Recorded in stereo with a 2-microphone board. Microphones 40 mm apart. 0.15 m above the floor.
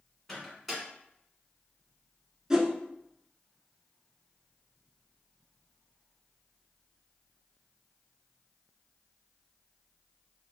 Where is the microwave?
Centre (ahead or behind), 1.2 m.